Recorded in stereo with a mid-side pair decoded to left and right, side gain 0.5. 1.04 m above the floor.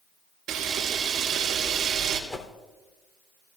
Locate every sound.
0.5 s a camera shutter: 60° right, 4 m
2.3 s a whoosh: 15° left, 3 m